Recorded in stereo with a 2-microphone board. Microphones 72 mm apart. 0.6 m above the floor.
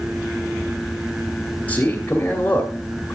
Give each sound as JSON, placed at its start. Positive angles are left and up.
{"t": 1.7, "sound": "a man speaking", "side_deg": 20, "distance_m": 1.5}